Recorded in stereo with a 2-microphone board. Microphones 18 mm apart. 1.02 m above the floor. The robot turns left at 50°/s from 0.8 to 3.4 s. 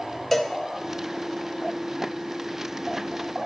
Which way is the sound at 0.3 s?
10° left (ahead or behind).